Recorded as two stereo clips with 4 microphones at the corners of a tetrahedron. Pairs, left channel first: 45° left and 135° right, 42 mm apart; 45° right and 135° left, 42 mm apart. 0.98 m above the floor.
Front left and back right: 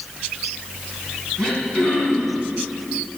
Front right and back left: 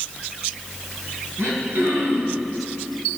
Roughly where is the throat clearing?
Behind left.